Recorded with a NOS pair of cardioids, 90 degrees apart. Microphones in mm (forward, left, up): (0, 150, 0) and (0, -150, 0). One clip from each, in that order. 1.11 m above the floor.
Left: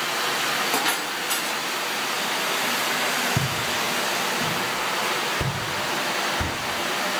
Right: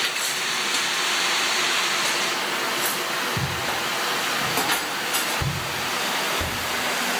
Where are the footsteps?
55° left, 3.5 m; by 6.5 s 50° left, 8 m.